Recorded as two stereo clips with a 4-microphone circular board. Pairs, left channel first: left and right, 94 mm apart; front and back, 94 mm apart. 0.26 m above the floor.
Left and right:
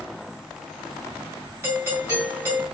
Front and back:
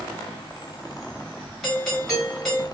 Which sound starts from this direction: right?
A doorbell, at 1.6 s.